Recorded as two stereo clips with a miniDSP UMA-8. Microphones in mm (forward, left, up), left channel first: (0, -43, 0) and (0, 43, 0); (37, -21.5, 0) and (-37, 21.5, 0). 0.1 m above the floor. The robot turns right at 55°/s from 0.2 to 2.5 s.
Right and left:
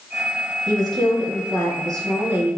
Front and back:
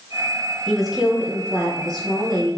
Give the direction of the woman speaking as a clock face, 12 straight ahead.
10 o'clock.